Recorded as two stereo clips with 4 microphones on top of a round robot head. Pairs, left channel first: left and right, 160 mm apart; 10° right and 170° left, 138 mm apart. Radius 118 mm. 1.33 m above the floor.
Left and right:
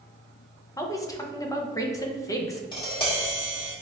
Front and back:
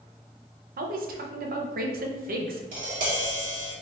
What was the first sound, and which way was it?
A woman speaking, 160° left.